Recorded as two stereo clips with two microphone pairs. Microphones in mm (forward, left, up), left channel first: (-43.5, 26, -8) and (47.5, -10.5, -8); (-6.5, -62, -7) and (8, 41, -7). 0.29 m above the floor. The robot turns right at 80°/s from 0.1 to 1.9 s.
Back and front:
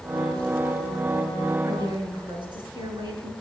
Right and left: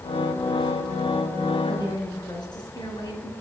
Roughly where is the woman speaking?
Right.